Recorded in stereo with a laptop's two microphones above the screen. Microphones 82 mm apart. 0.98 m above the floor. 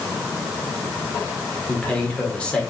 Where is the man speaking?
15° left (ahead or behind), 3.5 m.